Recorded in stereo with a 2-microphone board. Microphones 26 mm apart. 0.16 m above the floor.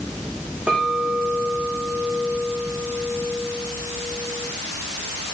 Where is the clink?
65° right (ahead or behind), 6 m.